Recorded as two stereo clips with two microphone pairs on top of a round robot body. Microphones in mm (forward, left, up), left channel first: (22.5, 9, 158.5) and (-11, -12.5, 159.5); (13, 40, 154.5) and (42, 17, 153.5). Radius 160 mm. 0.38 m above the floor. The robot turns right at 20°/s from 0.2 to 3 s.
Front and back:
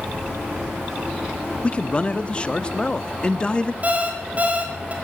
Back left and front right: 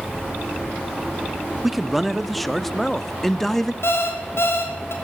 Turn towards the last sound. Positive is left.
turn(degrees=155)